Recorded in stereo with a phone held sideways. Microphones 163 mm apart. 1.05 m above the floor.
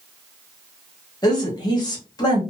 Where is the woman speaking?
25° left (ahead or behind), 1.2 m.